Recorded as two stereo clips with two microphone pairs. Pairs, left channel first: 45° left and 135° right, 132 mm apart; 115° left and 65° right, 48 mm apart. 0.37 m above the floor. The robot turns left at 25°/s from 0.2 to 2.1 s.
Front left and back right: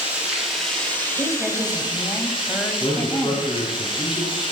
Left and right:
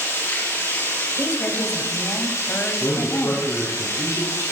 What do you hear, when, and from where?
0.0 s running water: 145° left, 6.5 m; by 4.5 s 95° left, 6.5 m
1.2 s a woman speaking: 140° left, 2.5 m; by 3.8 s 120° left, 2.5 m
2.8 s a man speaking: 95° left, 4.5 m